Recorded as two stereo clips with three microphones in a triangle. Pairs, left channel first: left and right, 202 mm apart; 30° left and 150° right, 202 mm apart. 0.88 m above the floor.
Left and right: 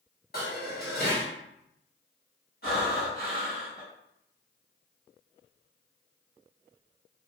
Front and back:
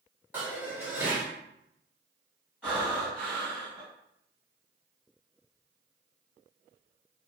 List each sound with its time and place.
0.3 s dishes clattering: 130° left, 1.1 m
2.6 s breathing: 115° left, 1.5 m